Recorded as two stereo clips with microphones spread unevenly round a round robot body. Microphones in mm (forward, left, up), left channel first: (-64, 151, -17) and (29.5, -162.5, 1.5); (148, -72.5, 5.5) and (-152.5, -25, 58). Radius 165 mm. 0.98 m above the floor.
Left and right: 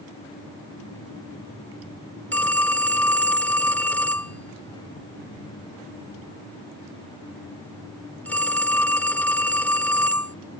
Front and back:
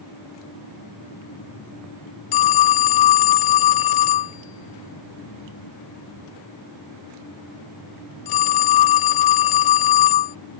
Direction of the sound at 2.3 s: 20° left.